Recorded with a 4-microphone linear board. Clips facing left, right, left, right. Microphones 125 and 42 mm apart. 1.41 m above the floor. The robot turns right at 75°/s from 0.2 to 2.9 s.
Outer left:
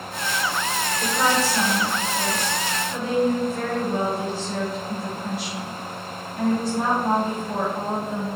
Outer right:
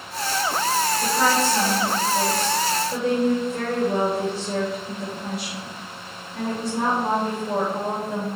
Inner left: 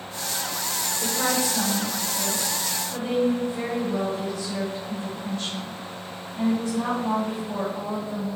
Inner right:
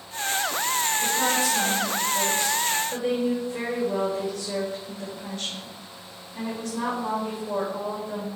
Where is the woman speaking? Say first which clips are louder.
Outer left 1 dB, inner left 2 dB; 165° left, 3 m; by 8.2 s 55° right, 3 m.